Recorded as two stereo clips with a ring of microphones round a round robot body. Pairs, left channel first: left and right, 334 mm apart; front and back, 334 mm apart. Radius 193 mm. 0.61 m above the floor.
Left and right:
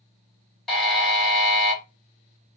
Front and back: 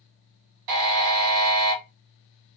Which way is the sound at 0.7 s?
Straight behind.